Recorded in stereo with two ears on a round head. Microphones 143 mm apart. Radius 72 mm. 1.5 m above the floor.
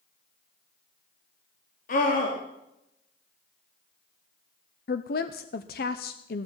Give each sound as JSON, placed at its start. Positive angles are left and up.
{"t": 1.9, "sound": "a scream", "side_deg": 55, "distance_m": 3.0}
{"t": 4.9, "sound": "a woman speaking", "side_deg": 60, "distance_m": 0.8}